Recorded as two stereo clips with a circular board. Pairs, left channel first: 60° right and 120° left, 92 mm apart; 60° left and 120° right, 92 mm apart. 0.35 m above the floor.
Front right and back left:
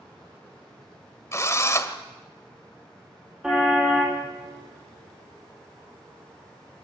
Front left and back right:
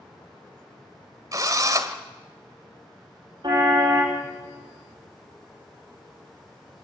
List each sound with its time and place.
1.3 s a drill: 100° right, 1.5 m
3.4 s a car horn: 160° right, 8 m